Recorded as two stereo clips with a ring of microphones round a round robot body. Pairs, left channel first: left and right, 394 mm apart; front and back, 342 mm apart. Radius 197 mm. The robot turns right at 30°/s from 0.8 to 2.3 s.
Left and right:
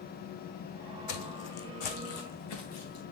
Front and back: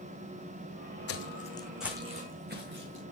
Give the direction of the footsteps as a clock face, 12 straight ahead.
11 o'clock.